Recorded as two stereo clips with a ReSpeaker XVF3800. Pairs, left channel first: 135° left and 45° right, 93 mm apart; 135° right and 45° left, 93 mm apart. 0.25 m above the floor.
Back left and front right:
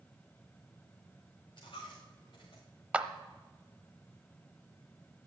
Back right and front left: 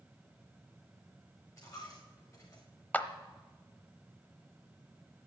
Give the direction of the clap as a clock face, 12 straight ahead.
3 o'clock.